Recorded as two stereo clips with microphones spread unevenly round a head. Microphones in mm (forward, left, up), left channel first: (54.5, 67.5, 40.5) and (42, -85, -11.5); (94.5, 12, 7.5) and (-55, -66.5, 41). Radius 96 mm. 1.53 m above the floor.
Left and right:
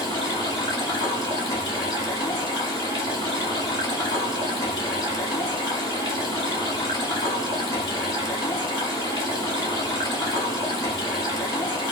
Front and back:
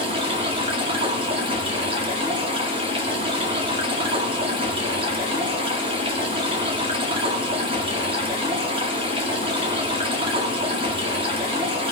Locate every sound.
0.0 s running water: 150° left, 2.0 m